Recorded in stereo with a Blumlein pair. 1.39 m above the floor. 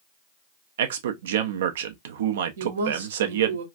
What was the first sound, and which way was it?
A man speaking, 60° right.